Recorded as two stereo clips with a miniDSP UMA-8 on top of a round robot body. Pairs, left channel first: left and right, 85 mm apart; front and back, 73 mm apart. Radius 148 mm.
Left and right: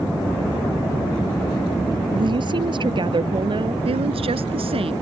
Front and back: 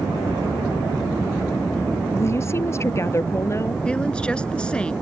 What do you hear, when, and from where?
2.1 s a woman speaking: 55° right
3.9 s a woman speaking: 80° right